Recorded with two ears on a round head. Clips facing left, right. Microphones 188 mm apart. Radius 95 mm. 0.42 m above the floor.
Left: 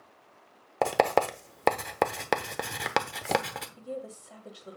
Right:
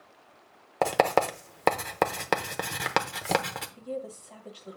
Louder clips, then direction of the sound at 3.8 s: Right 3 dB; 10° left (ahead or behind).